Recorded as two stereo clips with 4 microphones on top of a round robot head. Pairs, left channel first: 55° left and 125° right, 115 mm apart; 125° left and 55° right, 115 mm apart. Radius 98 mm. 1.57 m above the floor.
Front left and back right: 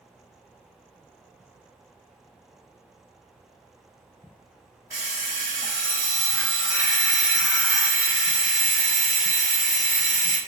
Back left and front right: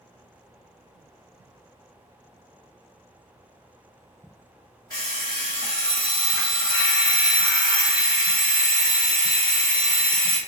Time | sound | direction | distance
4.9 | an alarm clock | 175° left | 0.9 m